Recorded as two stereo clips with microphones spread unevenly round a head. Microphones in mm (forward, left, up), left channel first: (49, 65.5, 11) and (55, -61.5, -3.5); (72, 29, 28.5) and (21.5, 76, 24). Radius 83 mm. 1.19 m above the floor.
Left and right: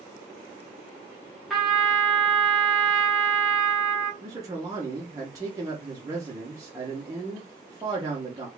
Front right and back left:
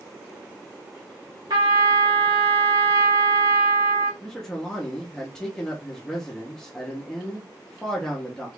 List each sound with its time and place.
1.5 s a trumpet: 175° right, 0.8 m
4.2 s a man speaking: 125° right, 0.7 m